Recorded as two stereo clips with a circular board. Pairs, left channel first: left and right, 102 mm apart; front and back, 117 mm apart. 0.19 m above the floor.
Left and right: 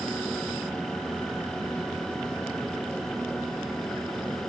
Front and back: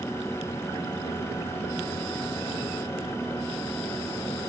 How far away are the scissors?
No scissors in this recording.